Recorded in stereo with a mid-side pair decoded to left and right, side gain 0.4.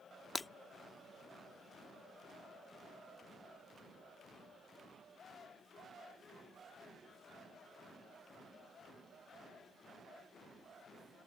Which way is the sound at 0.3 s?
25° left.